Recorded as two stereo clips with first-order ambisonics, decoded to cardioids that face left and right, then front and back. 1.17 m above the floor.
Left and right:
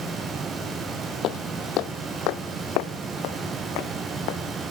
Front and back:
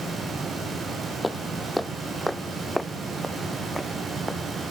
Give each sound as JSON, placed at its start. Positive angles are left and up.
{"t": 1.2, "sound": "footsteps", "azimuth_deg": 85}